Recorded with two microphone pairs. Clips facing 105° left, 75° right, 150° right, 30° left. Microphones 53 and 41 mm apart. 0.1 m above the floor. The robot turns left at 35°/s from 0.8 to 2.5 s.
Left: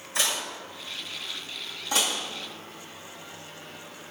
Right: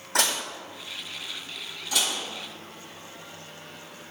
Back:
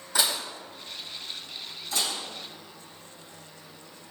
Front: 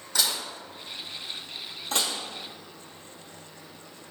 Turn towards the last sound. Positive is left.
turn(degrees=30)